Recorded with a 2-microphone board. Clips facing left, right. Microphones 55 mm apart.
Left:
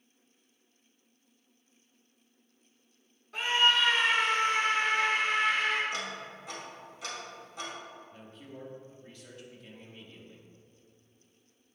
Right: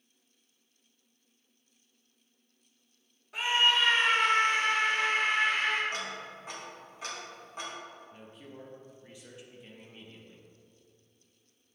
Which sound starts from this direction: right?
Ticking, at 5.9 s.